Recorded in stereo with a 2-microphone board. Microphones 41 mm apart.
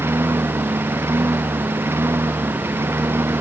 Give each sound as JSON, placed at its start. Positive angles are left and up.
{"t": 0.0, "sound": "a lawn mower", "side_deg": -85}